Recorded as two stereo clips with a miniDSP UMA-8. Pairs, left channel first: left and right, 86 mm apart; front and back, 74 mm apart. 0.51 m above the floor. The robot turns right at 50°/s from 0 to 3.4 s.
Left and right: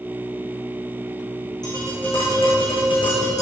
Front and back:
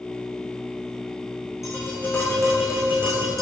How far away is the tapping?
About 7 m.